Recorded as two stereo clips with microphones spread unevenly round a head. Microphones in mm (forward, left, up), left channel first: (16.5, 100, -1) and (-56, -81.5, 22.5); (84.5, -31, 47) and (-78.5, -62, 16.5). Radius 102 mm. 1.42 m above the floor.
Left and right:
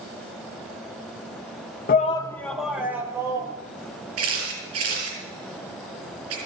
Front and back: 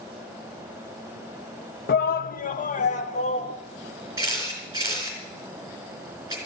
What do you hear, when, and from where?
1.9 s a shout: 20° left, 0.5 m; by 3.5 s 35° right, 1.9 m
4.2 s a camera shutter: 95° right, 5.5 m